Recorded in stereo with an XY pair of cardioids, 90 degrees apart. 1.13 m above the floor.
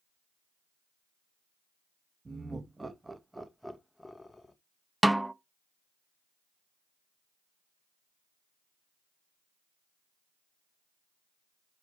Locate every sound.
2.2 s laughter: 30° right, 1.4 m; by 4.5 s 25° left, 1.2 m
5.0 s a snare drum: 10° right, 0.6 m